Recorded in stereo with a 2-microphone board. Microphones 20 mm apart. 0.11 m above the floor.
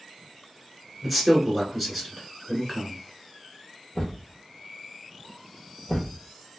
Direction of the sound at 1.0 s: Centre (ahead or behind).